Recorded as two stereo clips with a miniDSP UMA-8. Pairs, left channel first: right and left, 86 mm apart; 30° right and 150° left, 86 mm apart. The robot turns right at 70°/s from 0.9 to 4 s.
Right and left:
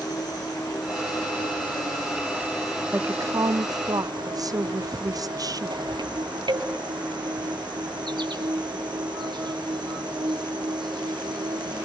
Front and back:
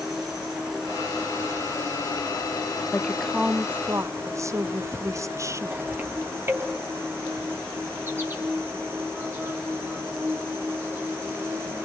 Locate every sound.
0.0 s an insect: 125° right, 3.5 m; by 11.8 s 90° left, 3.5 m
2.9 s a woman speaking: 35° left, 0.5 m; by 5.8 s 110° left, 0.5 m